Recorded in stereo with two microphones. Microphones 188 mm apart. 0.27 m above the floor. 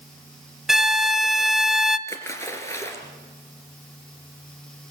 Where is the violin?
Centre (ahead or behind), 0.6 m.